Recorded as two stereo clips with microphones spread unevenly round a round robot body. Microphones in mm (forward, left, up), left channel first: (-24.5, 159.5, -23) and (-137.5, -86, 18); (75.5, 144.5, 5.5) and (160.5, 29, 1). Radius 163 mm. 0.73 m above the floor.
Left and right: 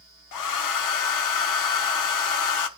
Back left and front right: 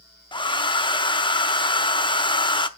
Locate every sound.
0.3 s a hair dryer: 65° left, 0.9 m